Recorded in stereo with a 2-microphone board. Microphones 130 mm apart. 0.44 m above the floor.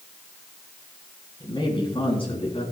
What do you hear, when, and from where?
1.4 s a man speaking: 35° left (ahead or behind), 3 m; by 2.6 s 45° left (ahead or behind), 3.5 m